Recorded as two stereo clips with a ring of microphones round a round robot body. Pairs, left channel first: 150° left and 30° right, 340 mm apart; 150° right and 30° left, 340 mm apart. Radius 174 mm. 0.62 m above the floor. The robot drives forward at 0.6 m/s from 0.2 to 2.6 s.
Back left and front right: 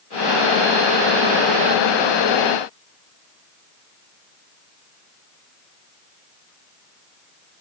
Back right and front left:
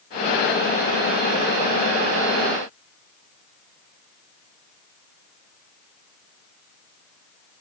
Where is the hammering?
I don't hear hammering.